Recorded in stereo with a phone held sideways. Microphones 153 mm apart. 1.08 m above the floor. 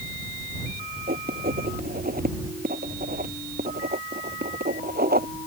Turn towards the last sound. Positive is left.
turn(degrees=-80)